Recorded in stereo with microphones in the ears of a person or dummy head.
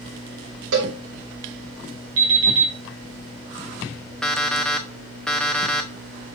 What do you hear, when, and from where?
0.7 s a cowbell: 70° right (ahead or behind), 3 m
2.2 s an alarm clock: 75° right (ahead or behind), 3.5 m
4.2 s an alarm clock: 5° left (ahead or behind), 0.9 m